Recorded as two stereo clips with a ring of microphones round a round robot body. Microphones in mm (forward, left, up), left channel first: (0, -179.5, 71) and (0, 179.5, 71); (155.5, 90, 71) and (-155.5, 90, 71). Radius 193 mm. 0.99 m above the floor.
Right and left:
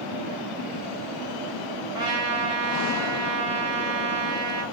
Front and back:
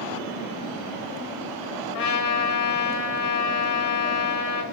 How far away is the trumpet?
About 1.0 m.